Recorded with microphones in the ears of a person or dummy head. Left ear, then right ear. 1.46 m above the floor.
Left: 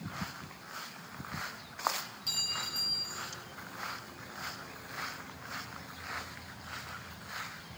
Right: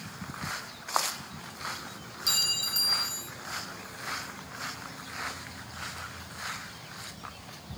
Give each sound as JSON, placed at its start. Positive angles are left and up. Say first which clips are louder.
{"t": 2.3, "sound": "a clink", "louder": "right 7 dB", "side_deg": -5, "distance_m": 0.6}